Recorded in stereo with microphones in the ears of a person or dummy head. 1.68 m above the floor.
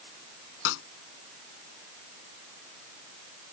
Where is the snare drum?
85° left.